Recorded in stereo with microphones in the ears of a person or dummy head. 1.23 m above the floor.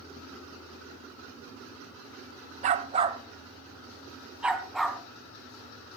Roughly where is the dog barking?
Right.